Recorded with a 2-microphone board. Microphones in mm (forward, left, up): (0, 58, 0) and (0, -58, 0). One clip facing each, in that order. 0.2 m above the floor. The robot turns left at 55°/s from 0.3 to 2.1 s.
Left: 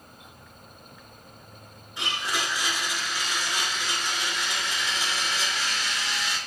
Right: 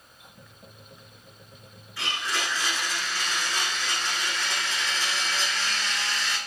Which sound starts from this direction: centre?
A blender, at 2.0 s.